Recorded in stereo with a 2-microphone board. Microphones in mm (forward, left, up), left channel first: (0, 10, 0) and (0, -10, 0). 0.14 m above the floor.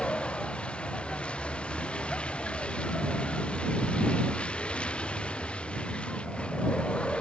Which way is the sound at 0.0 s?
75° left (ahead or behind).